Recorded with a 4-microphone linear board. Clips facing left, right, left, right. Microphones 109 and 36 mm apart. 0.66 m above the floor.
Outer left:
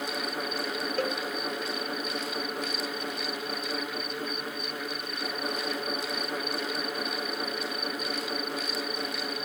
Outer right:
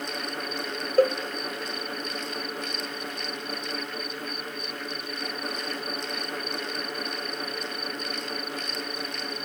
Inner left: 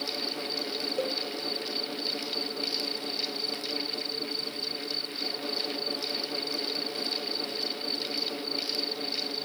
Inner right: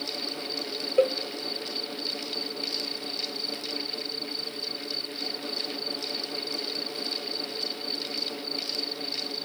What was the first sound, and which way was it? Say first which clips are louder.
A cowbell: outer right 11 dB, inner right 10 dB; 40° right (ahead or behind).